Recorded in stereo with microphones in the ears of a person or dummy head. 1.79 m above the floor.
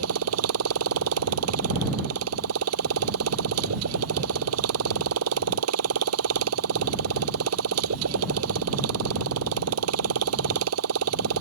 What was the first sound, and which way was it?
A motorcycle, 80° right.